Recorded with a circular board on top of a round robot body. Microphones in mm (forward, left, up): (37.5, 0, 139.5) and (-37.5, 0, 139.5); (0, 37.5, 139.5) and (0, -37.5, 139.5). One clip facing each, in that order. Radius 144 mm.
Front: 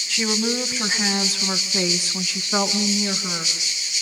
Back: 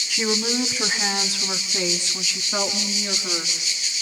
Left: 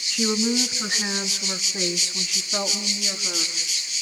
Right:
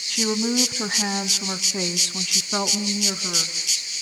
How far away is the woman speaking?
About 3.5 m.